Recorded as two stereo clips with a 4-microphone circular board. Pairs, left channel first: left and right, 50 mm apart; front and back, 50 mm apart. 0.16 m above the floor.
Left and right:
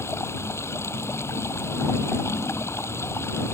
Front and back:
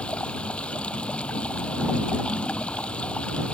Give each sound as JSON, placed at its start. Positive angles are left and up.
{"t": 0.0, "sound": "running water", "azimuth_deg": 65}